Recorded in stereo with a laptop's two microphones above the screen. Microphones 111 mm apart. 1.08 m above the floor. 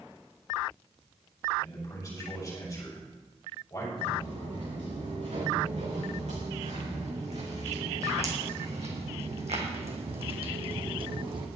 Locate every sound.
1.6 s a man speaking: 30° left (ahead or behind), 6 m
4.0 s footsteps: 70° right (ahead or behind), 6 m; by 11.5 s 45° right (ahead or behind), 2.5 m